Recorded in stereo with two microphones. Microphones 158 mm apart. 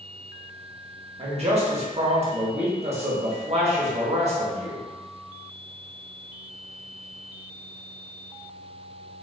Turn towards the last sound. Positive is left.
turn(degrees=-40)  # may be behind; listen again after turning